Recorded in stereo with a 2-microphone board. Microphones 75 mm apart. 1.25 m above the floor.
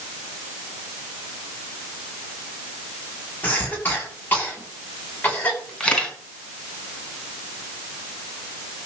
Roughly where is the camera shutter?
Centre.